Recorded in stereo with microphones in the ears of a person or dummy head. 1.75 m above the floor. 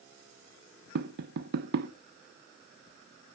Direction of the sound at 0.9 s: 55° right (ahead or behind).